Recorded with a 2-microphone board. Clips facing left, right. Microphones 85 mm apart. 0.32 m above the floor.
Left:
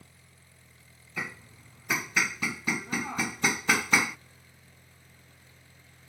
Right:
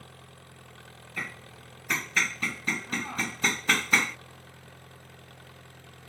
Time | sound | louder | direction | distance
0.0 | an engine running | right 9 dB | 70° right (ahead or behind) | ?
1.2 | hammering | left 1 dB | 10° left (ahead or behind) | ?